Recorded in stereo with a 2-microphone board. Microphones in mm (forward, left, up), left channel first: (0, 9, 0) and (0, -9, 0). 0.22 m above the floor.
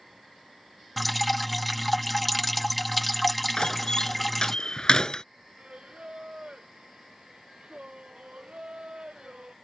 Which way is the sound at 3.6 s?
40° left (ahead or behind).